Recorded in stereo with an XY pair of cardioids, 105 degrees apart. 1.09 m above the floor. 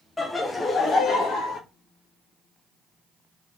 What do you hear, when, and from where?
0.2 s laughter: 15° left, 0.8 m; by 1.6 s 70° left, 0.9 m